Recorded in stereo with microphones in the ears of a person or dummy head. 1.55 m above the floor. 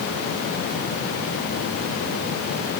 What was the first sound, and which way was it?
Only background noise.